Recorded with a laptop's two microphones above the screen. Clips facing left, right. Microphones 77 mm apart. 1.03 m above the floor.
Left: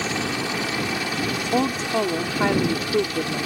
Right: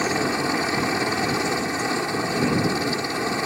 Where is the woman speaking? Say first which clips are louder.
Left 3 dB; 75° left (ahead or behind).